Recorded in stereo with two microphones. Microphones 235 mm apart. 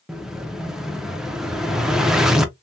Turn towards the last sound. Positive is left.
turn(degrees=0)  # may be behind; listen again after turning